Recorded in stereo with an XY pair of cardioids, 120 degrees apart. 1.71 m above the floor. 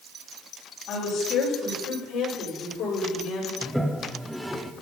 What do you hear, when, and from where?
0.9 s a woman speaking: 65° left, 5.5 m; by 3.5 s 80° left, 5.5 m
3.6 s a toilet flushing: 5° right, 1.1 m